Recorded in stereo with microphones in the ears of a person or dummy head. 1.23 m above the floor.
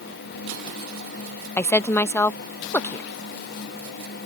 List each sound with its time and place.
1.6 s a woman speaking: 15° left (ahead or behind)